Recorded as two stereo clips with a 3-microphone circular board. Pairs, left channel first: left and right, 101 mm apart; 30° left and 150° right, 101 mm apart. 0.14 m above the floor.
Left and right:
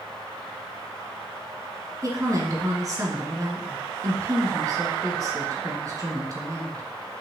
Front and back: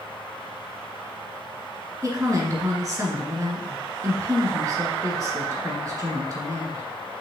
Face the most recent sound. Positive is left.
turn(degrees=-120)